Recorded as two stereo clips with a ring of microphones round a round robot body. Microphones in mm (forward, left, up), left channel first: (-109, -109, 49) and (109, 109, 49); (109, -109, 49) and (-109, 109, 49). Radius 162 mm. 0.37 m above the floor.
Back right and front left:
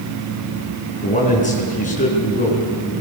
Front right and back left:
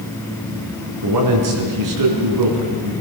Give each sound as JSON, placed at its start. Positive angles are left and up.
{"t": 1.0, "sound": "a man speaking", "azimuth_deg": 160, "distance_m": 5.0}